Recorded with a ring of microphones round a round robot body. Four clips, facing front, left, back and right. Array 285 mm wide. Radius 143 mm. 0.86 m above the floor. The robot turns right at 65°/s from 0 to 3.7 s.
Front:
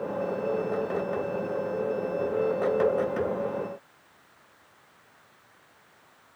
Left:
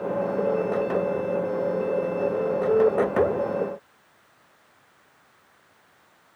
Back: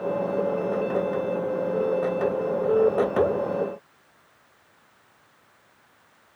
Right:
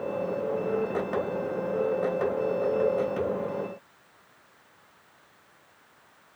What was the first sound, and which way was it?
Only background noise.